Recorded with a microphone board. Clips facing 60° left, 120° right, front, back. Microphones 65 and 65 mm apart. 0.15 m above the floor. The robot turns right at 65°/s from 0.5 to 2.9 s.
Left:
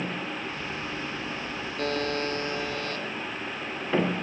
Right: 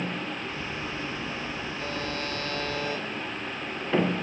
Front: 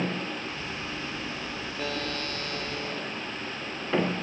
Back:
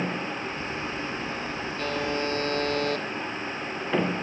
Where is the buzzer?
85° left, 3.5 m; by 3.0 s 160° left, 3.5 m.